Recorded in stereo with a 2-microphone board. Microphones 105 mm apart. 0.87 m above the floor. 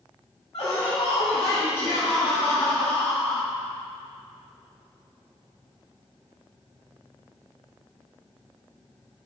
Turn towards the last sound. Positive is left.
turn(degrees=10)  # may be behind; listen again after turning